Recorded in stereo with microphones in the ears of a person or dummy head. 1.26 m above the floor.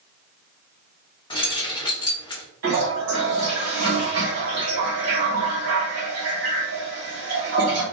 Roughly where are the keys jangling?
Left.